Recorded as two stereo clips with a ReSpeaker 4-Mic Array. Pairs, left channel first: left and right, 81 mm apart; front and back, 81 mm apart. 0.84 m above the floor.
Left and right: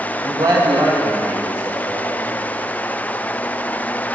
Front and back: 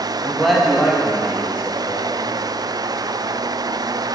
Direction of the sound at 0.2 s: 75° right.